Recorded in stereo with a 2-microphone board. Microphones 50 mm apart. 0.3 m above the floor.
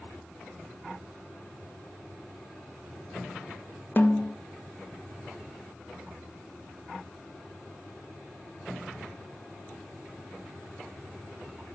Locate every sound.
4.0 s a snare drum: 40° left (ahead or behind), 0.7 m